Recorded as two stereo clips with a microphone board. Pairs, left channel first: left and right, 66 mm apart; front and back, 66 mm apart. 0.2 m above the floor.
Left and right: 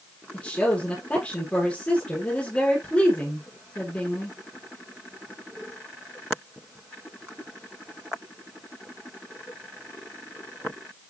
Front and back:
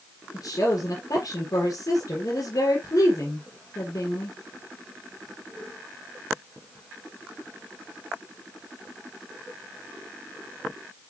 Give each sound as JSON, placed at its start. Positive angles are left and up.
{"t": 0.3, "sound": "a woman speaking", "azimuth_deg": 20, "distance_m": 4.5}